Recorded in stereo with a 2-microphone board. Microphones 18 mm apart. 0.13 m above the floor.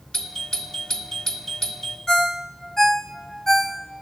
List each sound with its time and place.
0.1 s a doorbell: 35° left (ahead or behind), 2 m
2.1 s a ringtone: 25° left (ahead or behind), 1.2 m